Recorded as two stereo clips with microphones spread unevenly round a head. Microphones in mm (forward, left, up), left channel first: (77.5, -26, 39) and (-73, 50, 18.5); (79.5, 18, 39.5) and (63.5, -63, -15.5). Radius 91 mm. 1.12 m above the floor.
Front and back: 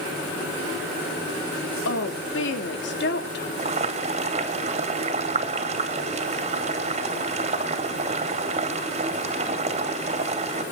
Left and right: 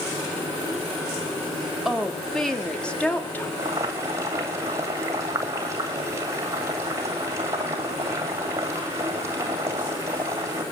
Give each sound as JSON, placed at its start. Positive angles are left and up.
{"t": 1.9, "sound": "a woman speaking", "azimuth_deg": -20, "distance_m": 3.0}
{"t": 3.6, "sound": "boiling", "azimuth_deg": -155, "distance_m": 2.5}